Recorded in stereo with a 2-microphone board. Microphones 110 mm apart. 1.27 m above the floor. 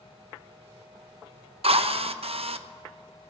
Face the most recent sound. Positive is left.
turn(degrees=-60)  # may be behind; listen again after turning